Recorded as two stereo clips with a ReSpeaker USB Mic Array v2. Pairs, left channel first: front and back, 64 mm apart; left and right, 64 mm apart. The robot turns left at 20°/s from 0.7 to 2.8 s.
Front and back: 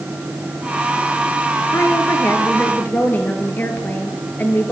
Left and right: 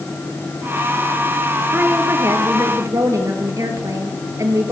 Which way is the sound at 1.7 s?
40° right.